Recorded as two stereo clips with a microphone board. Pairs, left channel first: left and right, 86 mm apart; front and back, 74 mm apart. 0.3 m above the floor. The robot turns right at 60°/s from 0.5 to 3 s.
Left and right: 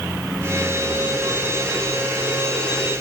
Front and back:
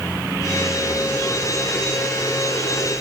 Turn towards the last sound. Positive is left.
No sound to turn to.